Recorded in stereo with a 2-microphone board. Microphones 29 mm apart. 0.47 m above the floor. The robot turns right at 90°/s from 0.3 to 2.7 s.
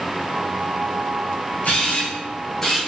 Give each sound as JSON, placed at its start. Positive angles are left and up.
{"t": 1.6, "sound": "a camera shutter", "side_deg": 80, "distance_m": 1.7}